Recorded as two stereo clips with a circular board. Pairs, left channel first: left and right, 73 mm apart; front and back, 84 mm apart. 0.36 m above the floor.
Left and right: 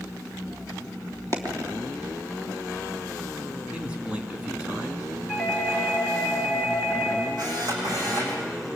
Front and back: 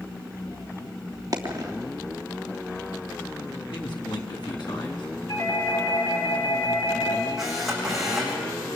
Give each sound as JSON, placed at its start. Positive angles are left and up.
{"t": 1.3, "sound": "a dropped coin", "azimuth_deg": -130, "distance_m": 3.0}
{"t": 3.7, "sound": "a man speaking", "azimuth_deg": -20, "distance_m": 3.5}
{"t": 5.3, "sound": "a doorbell", "azimuth_deg": -10, "distance_m": 5.5}
{"t": 7.4, "sound": "a camera shutter", "azimuth_deg": -95, "distance_m": 8.0}